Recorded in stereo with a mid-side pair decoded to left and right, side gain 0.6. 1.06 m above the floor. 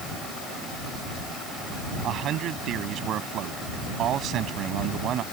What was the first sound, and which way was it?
A man speaking, 55° right.